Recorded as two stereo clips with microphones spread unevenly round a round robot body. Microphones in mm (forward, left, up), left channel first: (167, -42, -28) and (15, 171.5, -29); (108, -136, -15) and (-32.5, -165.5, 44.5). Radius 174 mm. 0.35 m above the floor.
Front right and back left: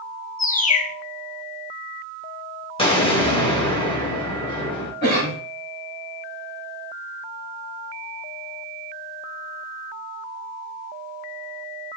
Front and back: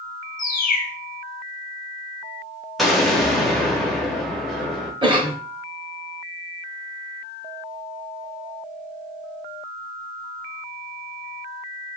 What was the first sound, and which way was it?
A bird, 10° left.